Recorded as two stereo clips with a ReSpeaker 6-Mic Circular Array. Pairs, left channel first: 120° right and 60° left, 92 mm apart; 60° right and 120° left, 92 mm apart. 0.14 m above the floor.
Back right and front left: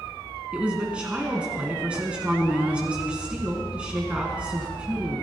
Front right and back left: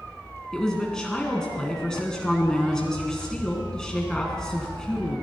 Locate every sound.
0.5 s a woman speaking: 10° left, 1.4 m